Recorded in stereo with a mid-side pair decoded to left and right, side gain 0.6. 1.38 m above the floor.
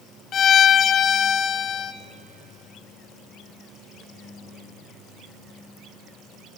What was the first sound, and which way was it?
A violin, 45° left.